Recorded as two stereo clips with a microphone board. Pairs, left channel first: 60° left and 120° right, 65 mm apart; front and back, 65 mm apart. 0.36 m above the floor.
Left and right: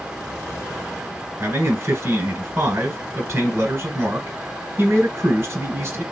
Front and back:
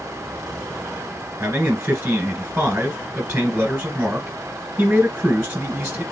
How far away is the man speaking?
About 1.4 m.